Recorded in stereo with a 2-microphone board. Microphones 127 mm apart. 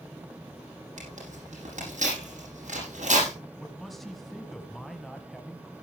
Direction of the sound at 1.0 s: 80° right.